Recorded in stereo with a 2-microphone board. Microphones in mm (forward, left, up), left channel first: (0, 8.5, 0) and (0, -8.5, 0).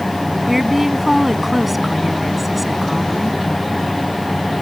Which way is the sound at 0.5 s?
15° right (ahead or behind).